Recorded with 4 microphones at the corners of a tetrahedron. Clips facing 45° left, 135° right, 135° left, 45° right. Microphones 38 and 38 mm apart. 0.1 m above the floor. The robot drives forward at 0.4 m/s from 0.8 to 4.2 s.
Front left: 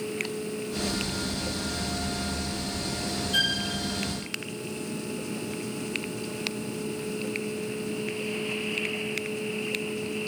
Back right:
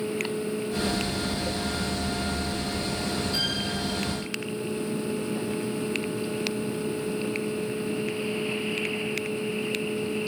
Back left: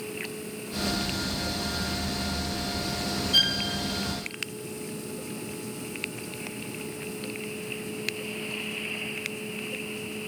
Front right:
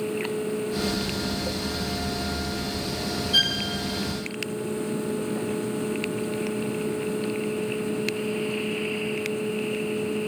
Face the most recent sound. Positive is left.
turn(degrees=50)